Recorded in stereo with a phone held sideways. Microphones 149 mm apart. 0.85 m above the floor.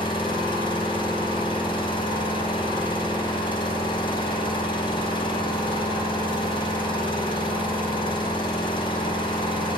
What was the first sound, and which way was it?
An engine running, 30° left (ahead or behind).